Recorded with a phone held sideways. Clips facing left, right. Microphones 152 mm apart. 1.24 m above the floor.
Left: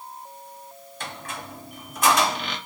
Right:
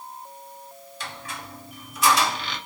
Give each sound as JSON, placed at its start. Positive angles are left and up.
{"t": 1.0, "sound": "a squeak", "side_deg": 45, "distance_m": 1.7}